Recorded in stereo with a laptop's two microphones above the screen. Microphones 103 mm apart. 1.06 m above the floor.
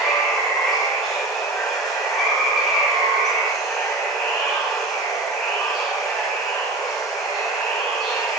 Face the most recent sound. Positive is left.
turn(degrees=5)  # may be behind; listen again after turning